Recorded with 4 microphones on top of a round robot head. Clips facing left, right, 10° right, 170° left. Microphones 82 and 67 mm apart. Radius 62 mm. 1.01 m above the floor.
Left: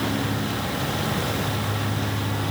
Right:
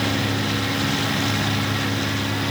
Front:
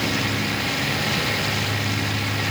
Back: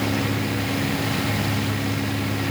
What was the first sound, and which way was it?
Only background noise.